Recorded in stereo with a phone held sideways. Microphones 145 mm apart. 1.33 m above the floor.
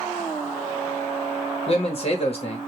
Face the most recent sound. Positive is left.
turn(degrees=40)  # may be behind; listen again after turning